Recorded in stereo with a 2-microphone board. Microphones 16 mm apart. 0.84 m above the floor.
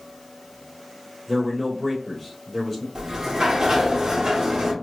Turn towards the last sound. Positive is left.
turn(degrees=-40)  # may be behind; listen again after turning